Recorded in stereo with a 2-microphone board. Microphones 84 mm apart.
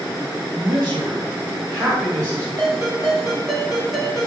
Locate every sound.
0.5 s a man speaking: 60° right (ahead or behind), 1.9 m; by 2.5 s 45° right (ahead or behind), 1.7 m
2.6 s a ringtone: 40° right (ahead or behind), 1.8 m